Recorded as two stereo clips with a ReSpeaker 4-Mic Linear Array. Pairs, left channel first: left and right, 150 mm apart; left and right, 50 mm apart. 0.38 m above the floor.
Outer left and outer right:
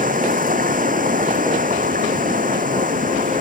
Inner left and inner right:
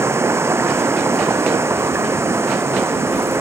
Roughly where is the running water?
Right.